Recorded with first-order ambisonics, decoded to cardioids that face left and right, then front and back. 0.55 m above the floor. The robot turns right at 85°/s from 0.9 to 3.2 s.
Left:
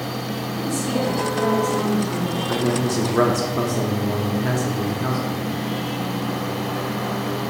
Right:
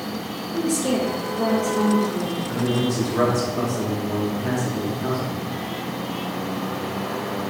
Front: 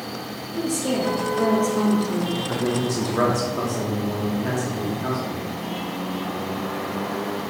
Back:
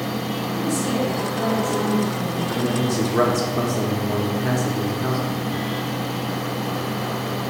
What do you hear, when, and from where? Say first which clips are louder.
0.5 s a woman speaking: right 3 dB, front 1 dB; 75° right, 2.0 m; by 2.4 s 50° left, 2.0 m
2.5 s a man speaking: left 2 dB, back 2 dB; 60° left, 0.6 m; by 5.5 s 120° left, 0.6 m